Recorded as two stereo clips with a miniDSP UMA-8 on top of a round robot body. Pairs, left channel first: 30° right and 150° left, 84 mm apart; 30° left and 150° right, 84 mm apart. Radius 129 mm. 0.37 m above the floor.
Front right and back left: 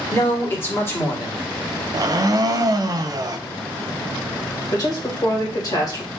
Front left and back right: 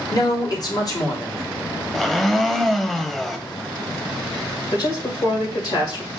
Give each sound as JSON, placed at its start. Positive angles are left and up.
{"t": 0.1, "sound": "a man speaking", "azimuth_deg": 20, "distance_m": 2.0}
{"t": 1.9, "sound": "a blender", "azimuth_deg": 115, "distance_m": 0.7}
{"t": 4.7, "sound": "a woman speaking", "azimuth_deg": 5, "distance_m": 2.0}